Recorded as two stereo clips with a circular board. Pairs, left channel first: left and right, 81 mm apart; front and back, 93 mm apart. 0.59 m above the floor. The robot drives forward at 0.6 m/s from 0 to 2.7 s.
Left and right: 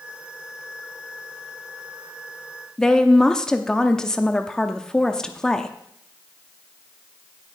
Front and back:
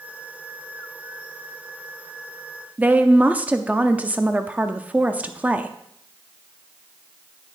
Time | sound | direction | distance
2.8 | a woman speaking | 150° left | 0.6 m